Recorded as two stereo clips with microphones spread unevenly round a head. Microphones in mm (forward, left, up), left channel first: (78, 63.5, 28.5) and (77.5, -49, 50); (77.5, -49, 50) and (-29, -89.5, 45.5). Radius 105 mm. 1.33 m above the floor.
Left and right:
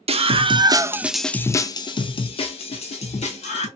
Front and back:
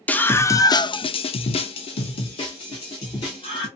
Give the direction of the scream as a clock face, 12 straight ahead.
2 o'clock.